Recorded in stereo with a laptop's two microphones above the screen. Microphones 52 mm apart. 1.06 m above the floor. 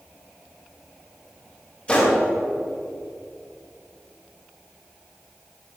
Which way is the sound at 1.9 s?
25° left (ahead or behind).